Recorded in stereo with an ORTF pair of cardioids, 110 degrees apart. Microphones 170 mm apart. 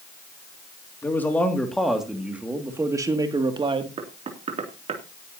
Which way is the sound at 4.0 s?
40° right.